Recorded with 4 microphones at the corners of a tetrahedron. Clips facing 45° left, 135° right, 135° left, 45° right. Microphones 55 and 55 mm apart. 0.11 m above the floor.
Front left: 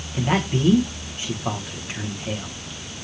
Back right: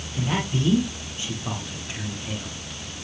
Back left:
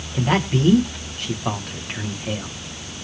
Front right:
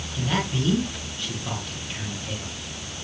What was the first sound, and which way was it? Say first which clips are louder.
A man speaking: front left 4 dB, back left 6 dB; 105° left.